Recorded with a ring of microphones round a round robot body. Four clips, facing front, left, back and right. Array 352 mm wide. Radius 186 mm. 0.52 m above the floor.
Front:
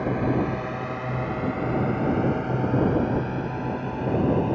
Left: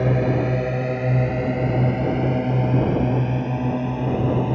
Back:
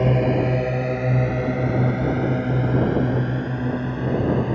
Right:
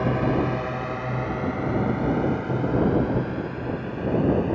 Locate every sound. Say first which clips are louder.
0.0 s a drone: left 2 dB, back 4 dB; 140° left; by 4.5 s 115° left